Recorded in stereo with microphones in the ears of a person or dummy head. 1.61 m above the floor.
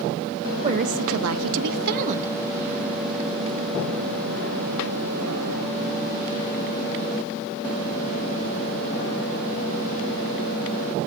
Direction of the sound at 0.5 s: 35° right (ahead or behind).